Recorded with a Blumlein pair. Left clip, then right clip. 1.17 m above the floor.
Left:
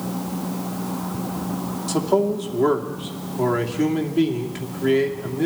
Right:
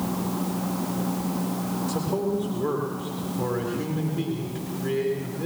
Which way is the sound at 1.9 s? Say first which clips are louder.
Left 8 dB; 50° left.